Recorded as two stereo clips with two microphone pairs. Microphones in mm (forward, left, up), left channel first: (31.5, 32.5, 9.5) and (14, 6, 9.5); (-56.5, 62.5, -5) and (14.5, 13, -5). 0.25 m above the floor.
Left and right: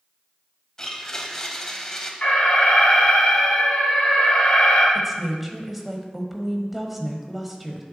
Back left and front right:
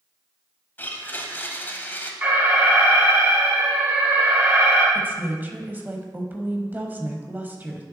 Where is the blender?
110° left, 0.9 m.